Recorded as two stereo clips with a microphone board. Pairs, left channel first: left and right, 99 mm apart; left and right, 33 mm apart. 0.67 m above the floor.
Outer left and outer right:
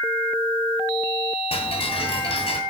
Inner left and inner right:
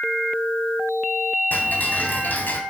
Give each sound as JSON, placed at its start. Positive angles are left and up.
{"t": 1.5, "sound": "ticking", "side_deg": 75, "distance_m": 2.5}